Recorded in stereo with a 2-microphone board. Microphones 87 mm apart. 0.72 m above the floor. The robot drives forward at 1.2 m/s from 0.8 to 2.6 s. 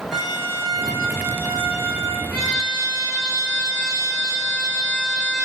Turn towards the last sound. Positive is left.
turn(degrees=10)  # may be behind; listen again after turning